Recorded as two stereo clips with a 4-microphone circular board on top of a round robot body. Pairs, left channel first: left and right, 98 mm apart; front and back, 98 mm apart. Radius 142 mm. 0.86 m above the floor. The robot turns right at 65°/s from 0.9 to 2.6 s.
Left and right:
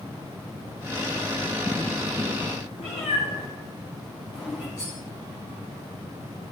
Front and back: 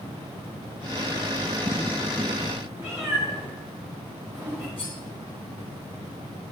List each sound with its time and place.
2.8 s a cat meowing: 115° left, 0.9 m
4.8 s cutlery clinking: 30° left, 1.9 m